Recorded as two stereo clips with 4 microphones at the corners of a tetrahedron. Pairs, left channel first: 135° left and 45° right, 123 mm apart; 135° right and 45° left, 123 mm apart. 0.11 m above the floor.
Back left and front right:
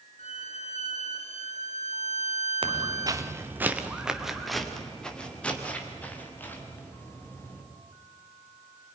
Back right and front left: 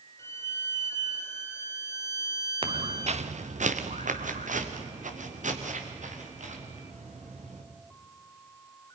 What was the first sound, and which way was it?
A violin, 155° left.